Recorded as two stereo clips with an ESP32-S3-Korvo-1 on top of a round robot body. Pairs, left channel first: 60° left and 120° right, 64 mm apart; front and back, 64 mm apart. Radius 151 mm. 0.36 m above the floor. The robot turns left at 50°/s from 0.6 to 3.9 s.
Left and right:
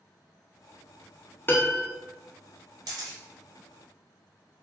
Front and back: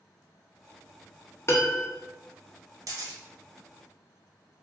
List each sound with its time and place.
1.5 s a piano: 15° left, 0.7 m; by 1.9 s straight ahead, 0.7 m
2.9 s a camera shutter: 140° right, 0.5 m; by 3.2 s 155° right, 0.5 m